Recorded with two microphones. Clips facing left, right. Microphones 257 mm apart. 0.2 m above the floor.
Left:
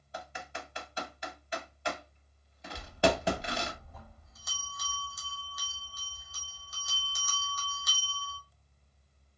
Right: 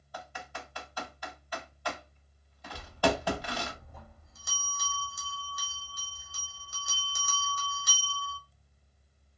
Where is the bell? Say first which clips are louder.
Left 1 dB; 30° right (ahead or behind), 1.7 m.